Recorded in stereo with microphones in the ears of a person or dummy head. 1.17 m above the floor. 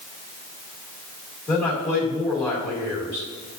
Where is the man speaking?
10° left (ahead or behind), 2.5 m.